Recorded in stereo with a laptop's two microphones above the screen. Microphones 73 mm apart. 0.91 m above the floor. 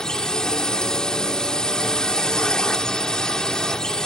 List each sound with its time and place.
0.0 s a drone: 10° left (ahead or behind)